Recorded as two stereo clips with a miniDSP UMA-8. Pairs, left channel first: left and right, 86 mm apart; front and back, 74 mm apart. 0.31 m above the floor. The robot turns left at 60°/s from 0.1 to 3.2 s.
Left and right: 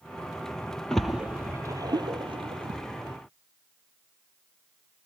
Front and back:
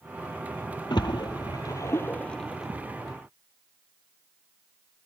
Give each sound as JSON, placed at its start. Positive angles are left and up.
{"t": 0.9, "sound": "a splash", "azimuth_deg": 10, "distance_m": 1.7}